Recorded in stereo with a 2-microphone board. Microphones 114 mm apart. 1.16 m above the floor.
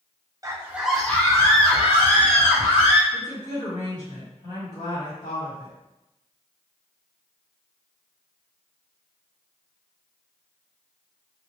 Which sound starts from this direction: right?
A scream, at 0.4 s.